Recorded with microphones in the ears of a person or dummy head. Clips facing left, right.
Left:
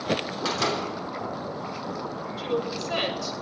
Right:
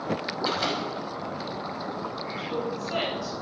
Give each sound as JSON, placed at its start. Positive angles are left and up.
{"t": 0.5, "sound": "a door slam", "side_deg": 80, "distance_m": 3.0}
{"t": 2.4, "sound": "a woman speaking", "side_deg": 70, "distance_m": 6.0}